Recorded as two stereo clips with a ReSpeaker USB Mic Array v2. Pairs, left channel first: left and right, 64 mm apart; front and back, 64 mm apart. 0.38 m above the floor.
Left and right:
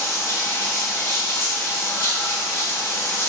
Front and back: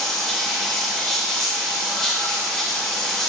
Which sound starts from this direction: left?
Running water, at 0.0 s.